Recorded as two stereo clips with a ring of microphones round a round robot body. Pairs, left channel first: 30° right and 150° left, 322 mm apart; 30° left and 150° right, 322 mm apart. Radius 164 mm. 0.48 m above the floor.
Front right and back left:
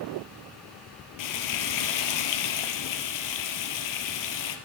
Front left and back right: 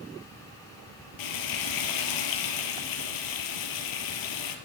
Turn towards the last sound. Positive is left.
turn(degrees=0)